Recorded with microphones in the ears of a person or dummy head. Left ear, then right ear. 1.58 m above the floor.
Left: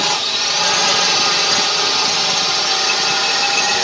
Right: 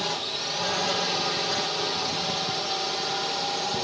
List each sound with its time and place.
0.0 s a drone: 55° left (ahead or behind)